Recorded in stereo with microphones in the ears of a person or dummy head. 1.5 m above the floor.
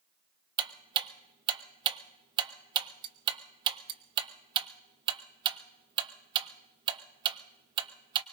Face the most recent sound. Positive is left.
turn(degrees=-30)  # may be behind; listen again after turning